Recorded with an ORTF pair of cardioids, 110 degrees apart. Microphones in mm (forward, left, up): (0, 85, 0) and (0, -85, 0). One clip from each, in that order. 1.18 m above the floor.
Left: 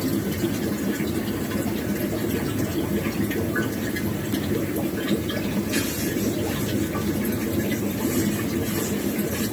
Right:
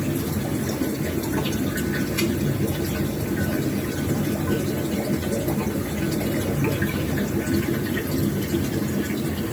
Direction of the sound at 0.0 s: 30° right.